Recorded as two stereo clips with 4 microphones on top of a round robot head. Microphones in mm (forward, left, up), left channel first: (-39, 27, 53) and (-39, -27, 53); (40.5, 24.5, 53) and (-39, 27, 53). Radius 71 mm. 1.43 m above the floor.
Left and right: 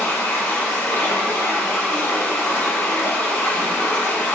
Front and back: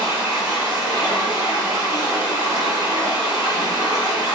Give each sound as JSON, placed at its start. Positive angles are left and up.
{"t": 0.0, "sound": "running water", "azimuth_deg": 140, "distance_m": 4.5}